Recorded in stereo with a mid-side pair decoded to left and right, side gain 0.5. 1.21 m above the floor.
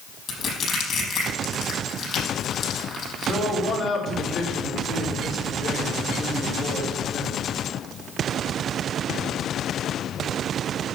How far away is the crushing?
About 6 m.